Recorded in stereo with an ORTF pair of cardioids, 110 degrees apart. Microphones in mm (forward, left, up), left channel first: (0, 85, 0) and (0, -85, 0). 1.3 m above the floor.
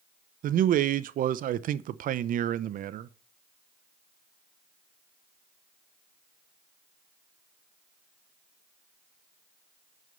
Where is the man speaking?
55° right, 0.7 m.